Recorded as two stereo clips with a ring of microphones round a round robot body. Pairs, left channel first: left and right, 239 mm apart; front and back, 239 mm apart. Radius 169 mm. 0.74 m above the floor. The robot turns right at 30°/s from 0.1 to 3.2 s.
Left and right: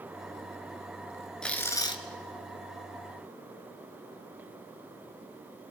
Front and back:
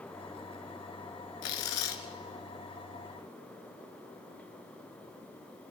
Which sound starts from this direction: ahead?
Tearing paper, at 1.4 s.